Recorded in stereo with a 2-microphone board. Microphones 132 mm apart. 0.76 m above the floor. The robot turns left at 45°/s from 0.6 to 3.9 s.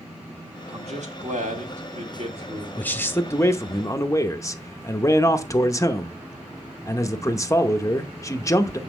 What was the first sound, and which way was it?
A man speaking, 55° right.